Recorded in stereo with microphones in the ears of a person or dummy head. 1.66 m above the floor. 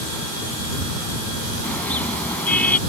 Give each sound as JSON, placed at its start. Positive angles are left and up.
{"t": 1.6, "sound": "a car horn", "side_deg": 5}